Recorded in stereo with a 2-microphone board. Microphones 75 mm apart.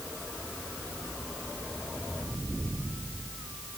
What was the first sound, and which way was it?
Only background noise.